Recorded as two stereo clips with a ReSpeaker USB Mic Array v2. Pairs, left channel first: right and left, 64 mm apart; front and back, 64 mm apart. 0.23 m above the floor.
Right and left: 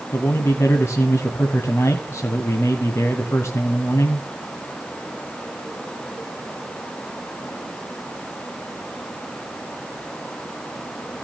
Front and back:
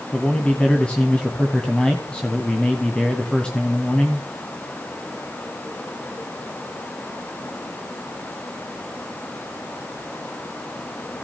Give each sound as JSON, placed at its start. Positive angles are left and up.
{"t": 0.1, "sound": "a man speaking", "azimuth_deg": -70, "distance_m": 1.7}